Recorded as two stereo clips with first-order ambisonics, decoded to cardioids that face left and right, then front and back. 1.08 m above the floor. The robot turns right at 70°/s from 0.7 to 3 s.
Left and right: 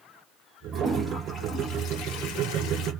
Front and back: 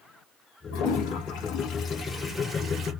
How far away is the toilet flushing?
About 0.8 m.